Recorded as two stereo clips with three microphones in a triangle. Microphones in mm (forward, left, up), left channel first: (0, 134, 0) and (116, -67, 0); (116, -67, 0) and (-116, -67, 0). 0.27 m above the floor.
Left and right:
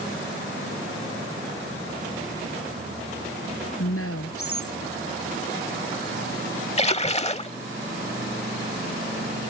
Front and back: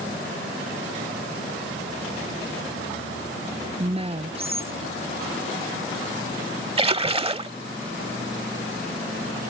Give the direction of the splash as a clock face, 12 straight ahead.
7 o'clock.